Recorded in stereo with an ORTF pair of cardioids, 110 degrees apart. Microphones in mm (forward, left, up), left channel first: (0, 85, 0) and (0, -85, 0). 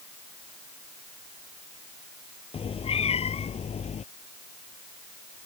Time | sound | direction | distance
2.5 | a cat meowing | 35° left | ?